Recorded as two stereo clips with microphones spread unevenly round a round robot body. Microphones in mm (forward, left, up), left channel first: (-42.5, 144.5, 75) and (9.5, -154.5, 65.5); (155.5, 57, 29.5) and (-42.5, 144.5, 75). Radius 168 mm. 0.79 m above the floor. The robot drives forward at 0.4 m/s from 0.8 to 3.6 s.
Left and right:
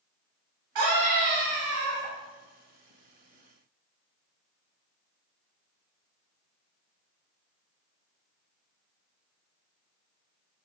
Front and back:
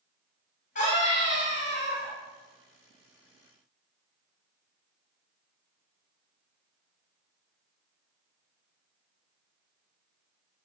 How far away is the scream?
About 6.5 m.